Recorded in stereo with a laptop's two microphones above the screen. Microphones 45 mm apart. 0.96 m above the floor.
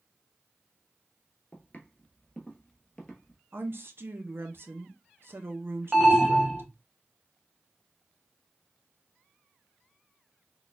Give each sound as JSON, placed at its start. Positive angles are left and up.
{"t": 1.5, "sound": "footsteps", "side_deg": 35, "distance_m": 1.1}
{"t": 3.5, "sound": "a woman speaking", "side_deg": -55, "distance_m": 0.7}
{"t": 5.9, "sound": "an alarm", "side_deg": -10, "distance_m": 0.8}